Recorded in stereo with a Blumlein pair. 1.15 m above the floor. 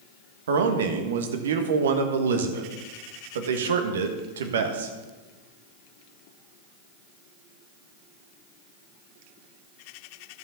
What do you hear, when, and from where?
0.5 s a man speaking: 60° right, 1.3 m